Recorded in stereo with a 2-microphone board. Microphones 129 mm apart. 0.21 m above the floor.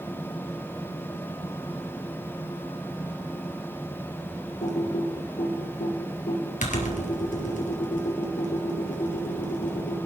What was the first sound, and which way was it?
Typing on a keyboard, 70° left (ahead or behind).